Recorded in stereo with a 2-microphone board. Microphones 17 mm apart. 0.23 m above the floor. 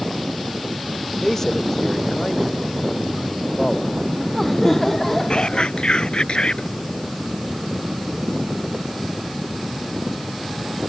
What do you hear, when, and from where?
1.2 s a man speaking: 30° left (ahead or behind)
3.9 s laughter: 20° left (ahead or behind)
5.3 s whispering: 70° left (ahead or behind)